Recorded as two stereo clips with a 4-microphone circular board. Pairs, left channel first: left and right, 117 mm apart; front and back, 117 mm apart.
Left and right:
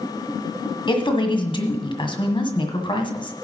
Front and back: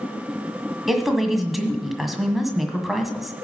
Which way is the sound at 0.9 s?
90° left.